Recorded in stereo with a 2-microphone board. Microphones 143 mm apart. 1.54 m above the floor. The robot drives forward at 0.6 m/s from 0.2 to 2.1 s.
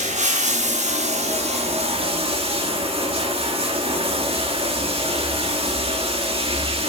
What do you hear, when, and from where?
0.0 s running water: 55° right (ahead or behind), 1.3 m; by 6.9 s 40° right (ahead or behind), 1.6 m